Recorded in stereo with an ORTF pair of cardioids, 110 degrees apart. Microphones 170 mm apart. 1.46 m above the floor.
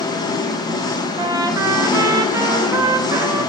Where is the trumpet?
20° right, 0.7 m.